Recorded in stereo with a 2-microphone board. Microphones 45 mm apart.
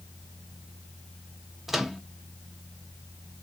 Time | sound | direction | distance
1.7 | a microwave | 5° right (ahead or behind) | 0.5 m